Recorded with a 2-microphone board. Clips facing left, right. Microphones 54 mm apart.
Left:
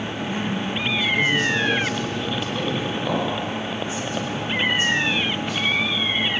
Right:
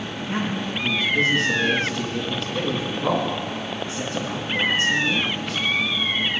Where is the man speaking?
75° right (ahead or behind), 3.5 m.